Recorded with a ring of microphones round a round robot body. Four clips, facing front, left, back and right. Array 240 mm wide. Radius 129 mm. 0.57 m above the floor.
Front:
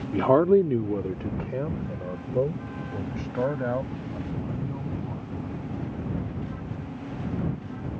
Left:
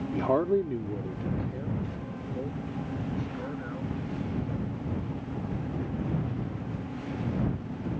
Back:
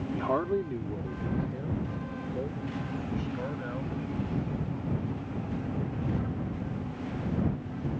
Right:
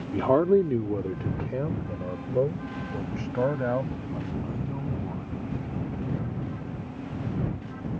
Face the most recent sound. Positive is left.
turn(degrees=-55)